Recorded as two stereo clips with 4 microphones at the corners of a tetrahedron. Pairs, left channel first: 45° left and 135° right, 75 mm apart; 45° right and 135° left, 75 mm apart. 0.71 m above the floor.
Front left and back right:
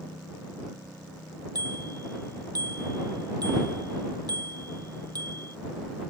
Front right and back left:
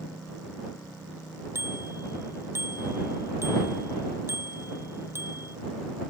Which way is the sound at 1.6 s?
170° right.